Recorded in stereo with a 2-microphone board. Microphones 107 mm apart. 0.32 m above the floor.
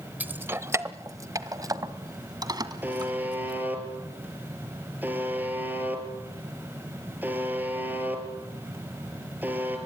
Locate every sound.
0.2 s keys jangling: 15° right (ahead or behind), 0.8 m; by 3.6 s 40° right (ahead or behind), 2.5 m
2.8 s a buzzer: 20° right (ahead or behind), 4.5 m